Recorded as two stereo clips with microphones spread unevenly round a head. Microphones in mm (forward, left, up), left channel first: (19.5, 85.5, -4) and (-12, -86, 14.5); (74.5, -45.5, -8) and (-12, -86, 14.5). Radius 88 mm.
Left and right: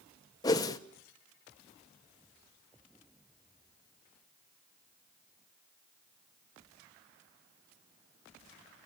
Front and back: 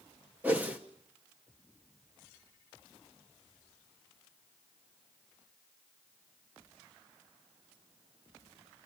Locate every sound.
0.4 s a whoosh: 150° left, 0.9 m